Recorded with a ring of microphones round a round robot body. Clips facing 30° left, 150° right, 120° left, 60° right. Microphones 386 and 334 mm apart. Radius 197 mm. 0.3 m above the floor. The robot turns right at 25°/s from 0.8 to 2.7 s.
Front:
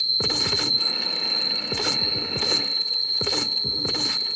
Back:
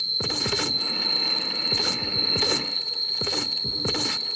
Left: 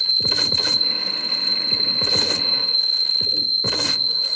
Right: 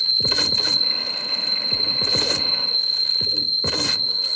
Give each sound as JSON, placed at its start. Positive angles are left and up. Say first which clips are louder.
{"t": 0.0, "sound": "an insect", "louder": "front 1 dB, right 1 dB", "azimuth_deg": 80, "distance_m": 2.0}